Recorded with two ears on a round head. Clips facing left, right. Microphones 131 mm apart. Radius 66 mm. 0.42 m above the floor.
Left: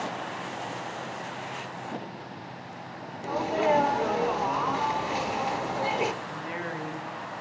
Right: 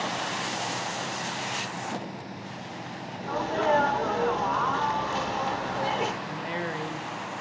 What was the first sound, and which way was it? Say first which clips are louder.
A sneeze: left 1 dB; 10° left (ahead or behind).